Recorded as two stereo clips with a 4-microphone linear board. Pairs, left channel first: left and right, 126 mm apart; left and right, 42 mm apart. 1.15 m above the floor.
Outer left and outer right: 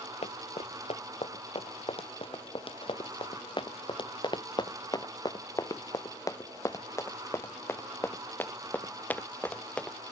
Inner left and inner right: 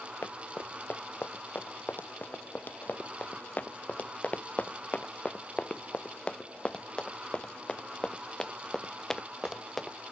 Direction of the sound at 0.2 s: 55° left (ahead or behind).